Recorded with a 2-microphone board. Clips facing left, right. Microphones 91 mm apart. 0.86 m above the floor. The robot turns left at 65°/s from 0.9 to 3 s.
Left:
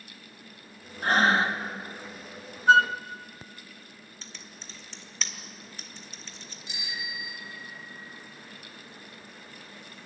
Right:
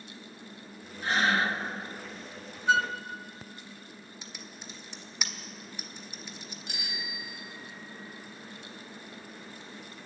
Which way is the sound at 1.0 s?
60° left.